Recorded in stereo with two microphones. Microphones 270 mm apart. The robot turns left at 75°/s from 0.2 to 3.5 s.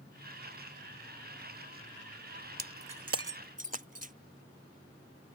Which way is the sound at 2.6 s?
75° right (ahead or behind).